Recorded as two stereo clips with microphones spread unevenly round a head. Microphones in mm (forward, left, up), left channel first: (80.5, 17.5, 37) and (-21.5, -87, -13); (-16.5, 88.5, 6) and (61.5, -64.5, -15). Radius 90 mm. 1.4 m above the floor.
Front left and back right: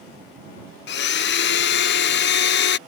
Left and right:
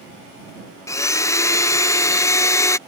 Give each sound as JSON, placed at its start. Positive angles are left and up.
{"t": 0.9, "sound": "a blender", "azimuth_deg": 40}